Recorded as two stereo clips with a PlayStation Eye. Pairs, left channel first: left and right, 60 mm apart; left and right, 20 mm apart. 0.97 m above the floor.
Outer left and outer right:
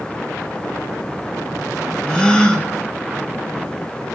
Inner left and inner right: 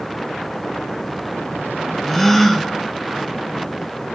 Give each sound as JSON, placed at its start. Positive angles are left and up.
{"t": 2.1, "sound": "a gasp", "side_deg": 15, "distance_m": 1.4}